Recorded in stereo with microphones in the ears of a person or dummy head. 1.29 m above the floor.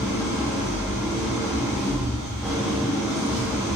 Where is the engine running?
5° left (ahead or behind), 1.0 m.